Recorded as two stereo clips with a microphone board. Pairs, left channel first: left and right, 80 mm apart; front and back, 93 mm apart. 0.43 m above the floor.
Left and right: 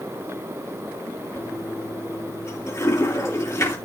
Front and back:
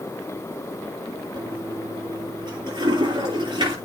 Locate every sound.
1.4 s a toilet flushing: 145° left, 8.5 m